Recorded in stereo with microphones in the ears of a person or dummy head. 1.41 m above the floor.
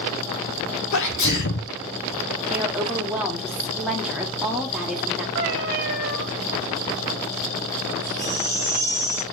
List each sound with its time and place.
0.9 s a sneeze: 60° left (ahead or behind), 0.6 m
2.5 s a woman speaking: 5° right (ahead or behind), 1.4 m
5.3 s a cat meowing: 40° right (ahead or behind), 0.7 m
8.0 s a baby crying: 40° left (ahead or behind), 4 m